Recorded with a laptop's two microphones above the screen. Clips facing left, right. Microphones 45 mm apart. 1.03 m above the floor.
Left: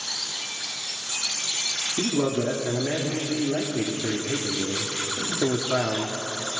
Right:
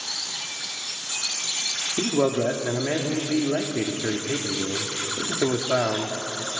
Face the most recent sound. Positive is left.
turn(degrees=-40)  # may be behind; listen again after turning